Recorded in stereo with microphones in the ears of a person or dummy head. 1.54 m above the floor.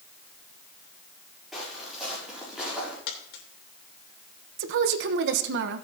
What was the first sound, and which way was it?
Footsteps, 5° right (ahead or behind).